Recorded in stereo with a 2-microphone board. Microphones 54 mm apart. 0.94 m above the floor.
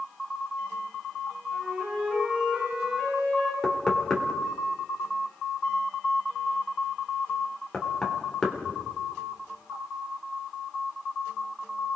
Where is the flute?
20° right (ahead or behind), 9.5 m.